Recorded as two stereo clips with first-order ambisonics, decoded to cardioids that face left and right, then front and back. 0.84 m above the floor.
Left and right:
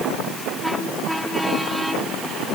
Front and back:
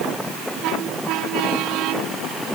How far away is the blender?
I don't hear a blender.